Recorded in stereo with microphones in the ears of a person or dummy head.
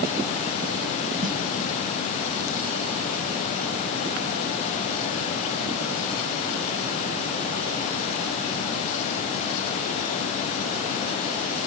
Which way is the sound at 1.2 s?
30° right (ahead or behind).